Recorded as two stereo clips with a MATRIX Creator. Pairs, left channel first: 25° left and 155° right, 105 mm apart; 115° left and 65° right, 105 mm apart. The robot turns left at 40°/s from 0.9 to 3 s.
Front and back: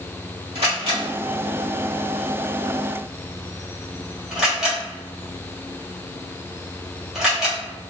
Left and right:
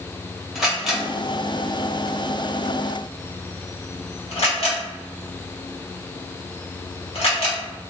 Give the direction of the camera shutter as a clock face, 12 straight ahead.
5 o'clock.